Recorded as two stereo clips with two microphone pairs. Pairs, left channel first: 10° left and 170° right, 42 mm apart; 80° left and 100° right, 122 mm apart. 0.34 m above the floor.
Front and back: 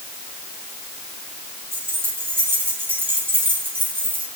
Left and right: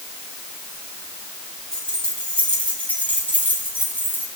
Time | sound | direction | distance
1.7 | keys jangling | 160° left | 8 m